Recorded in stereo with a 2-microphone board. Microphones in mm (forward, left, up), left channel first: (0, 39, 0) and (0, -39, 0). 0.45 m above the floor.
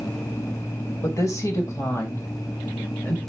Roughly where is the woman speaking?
Left.